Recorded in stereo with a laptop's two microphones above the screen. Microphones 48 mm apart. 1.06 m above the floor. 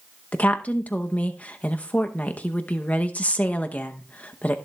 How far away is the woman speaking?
About 0.7 m.